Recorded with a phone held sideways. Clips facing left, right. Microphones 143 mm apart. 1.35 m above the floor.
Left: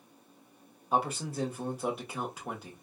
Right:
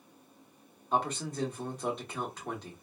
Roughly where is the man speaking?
Centre.